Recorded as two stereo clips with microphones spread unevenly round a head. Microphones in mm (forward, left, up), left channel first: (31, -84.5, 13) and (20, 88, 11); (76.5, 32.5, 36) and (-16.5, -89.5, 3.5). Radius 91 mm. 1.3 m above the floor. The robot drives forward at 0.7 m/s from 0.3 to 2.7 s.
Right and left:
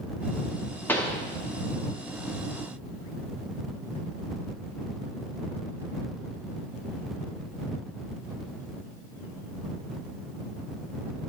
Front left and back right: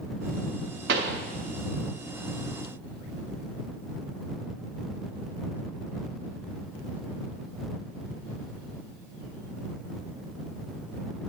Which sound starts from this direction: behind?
A pop, at 0.9 s.